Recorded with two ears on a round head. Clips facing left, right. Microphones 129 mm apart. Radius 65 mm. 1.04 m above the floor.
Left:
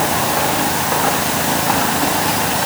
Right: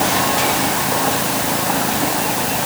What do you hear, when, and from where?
Only background noise.